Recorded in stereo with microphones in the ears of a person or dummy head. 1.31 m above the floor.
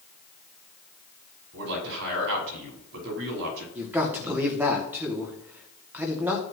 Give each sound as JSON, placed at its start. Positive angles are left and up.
{"t": 1.5, "sound": "a man speaking", "side_deg": -65, "distance_m": 5.5}
{"t": 3.8, "sound": "a man speaking", "side_deg": -5, "distance_m": 2.5}